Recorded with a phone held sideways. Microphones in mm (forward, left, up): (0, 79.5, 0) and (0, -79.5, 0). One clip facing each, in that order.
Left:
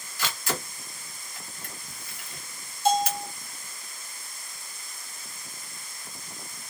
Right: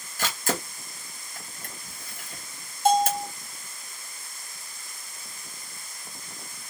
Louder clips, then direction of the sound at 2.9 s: Right 3 dB; 55° right (ahead or behind).